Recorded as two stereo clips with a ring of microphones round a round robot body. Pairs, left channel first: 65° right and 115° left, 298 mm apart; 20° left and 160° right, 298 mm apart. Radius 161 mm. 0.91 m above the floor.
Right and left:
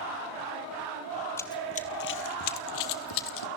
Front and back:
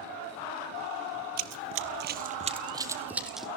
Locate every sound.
1.4 s running footsteps: 145° right, 1.2 m; by 3.5 s 70° right, 1.8 m